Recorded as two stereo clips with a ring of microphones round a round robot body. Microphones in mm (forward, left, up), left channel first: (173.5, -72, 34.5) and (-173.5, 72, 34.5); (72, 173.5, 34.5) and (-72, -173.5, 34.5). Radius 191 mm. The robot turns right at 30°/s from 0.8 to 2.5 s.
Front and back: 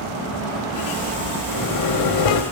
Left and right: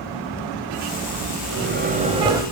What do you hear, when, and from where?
1.5 s a microwave: 60° right, 2 m; by 2.4 s 30° right, 2 m